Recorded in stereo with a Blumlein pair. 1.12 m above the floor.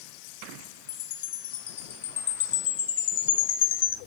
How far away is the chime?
About 1.4 m.